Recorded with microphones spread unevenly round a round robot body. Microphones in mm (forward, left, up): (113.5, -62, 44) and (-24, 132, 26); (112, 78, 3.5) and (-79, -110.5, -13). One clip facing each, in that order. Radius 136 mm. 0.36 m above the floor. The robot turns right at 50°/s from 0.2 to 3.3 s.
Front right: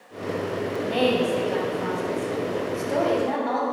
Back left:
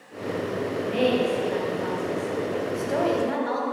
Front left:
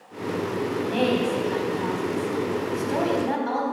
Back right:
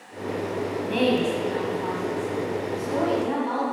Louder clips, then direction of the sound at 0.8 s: Front right 1 dB, back right 2 dB; 70° right.